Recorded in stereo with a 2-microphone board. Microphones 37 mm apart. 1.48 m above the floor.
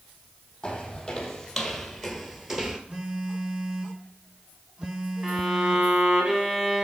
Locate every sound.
0.6 s footsteps: 15° left (ahead or behind), 2.5 m; by 2.8 s 15° right (ahead or behind), 1.5 m
2.9 s a phone buzzing: 25° right (ahead or behind), 1.8 m
5.2 s a violin: 20° right (ahead or behind), 2.5 m